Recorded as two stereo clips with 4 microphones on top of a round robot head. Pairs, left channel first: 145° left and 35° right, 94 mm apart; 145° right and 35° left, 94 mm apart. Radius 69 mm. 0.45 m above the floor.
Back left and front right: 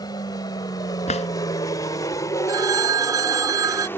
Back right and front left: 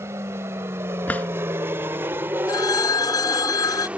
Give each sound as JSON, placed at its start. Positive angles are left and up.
{"t": 0.0, "sound": "an aircraft", "azimuth_deg": 100}
{"t": 1.1, "sound": "a drawer", "azimuth_deg": 145}
{"t": 2.5, "sound": "a phone ringing", "azimuth_deg": -90}